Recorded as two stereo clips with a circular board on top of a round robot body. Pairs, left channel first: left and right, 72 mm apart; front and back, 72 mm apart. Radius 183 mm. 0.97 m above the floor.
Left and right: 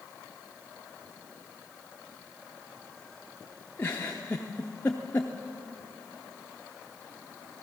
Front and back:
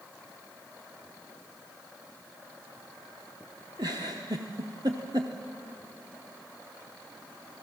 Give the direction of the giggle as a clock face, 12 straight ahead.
7 o'clock.